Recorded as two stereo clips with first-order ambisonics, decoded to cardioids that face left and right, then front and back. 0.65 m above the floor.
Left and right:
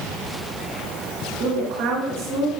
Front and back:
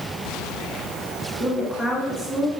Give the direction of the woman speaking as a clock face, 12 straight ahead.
2 o'clock.